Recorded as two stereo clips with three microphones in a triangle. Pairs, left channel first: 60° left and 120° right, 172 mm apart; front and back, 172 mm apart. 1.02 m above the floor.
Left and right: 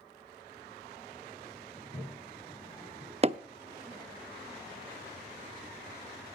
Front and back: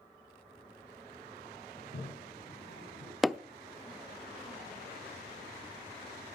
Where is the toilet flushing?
Straight ahead, 7 m.